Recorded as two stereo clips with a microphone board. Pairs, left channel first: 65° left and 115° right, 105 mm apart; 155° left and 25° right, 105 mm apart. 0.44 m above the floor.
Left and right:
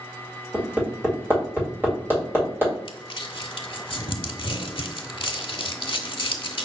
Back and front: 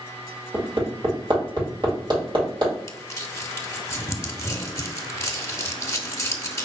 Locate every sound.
0.5 s hammering: 50° right, 2.0 m
2.9 s crumpling: 100° left, 0.7 m